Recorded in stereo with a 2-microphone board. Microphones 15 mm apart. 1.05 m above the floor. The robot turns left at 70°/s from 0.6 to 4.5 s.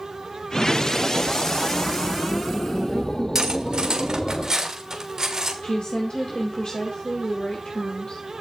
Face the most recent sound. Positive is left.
turn(degrees=70)  # may be behind; listen again after turning